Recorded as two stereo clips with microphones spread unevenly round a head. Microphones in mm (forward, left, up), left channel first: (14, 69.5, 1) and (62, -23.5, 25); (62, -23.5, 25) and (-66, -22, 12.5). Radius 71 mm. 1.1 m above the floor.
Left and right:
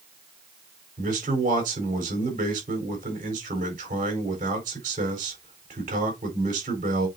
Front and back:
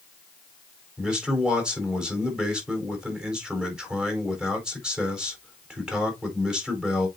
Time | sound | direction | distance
1.0 | a man speaking | 95° right | 4.5 m